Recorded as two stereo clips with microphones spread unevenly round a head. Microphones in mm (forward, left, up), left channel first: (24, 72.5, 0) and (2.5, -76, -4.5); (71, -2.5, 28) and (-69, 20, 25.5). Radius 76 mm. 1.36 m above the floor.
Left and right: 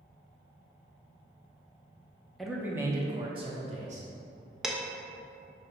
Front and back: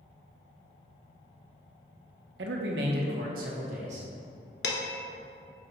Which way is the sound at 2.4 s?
170° left.